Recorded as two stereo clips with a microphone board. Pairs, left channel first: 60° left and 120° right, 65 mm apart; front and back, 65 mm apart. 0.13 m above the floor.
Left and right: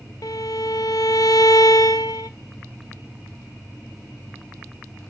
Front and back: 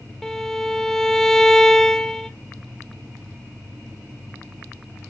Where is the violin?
85° left, 0.6 m.